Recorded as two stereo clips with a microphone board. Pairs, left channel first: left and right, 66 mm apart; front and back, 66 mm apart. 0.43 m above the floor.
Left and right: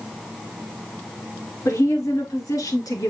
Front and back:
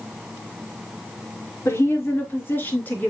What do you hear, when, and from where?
1.6 s a woman speaking: 50° left, 5.5 m; by 3.1 s 65° left, 4.5 m